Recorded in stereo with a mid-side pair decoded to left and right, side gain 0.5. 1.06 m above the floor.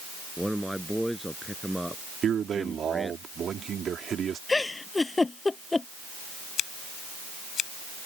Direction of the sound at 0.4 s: Straight ahead.